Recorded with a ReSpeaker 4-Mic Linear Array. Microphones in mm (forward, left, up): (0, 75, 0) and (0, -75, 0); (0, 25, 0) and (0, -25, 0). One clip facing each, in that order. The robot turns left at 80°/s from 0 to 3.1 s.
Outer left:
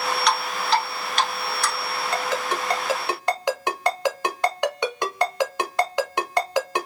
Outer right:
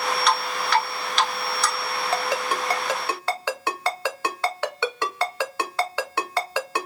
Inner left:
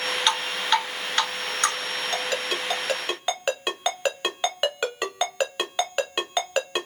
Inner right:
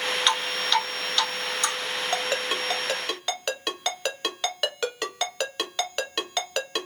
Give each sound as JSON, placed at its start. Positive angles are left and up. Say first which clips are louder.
{"t": 0.3, "sound": "dripping", "louder": "outer left 1 dB, inner left 3 dB", "side_deg": -5, "distance_m": 1.1}
{"t": 2.1, "sound": "a ringtone", "louder": "outer right 1 dB, inner right 1 dB", "side_deg": -30, "distance_m": 0.8}